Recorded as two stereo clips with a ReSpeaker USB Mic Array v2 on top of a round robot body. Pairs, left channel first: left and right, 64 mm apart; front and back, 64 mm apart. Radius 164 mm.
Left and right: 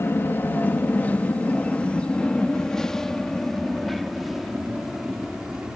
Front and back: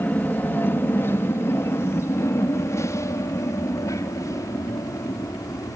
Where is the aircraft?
50° left; by 5.8 s 10° right.